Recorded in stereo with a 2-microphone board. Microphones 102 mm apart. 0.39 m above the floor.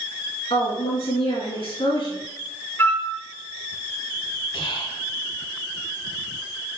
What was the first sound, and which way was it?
A woman speaking, 70° left (ahead or behind).